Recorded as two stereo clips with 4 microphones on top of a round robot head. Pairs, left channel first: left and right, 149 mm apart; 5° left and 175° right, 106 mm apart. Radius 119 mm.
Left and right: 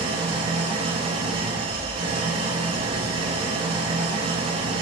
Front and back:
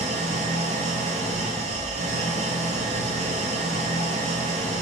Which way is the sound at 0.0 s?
150° right.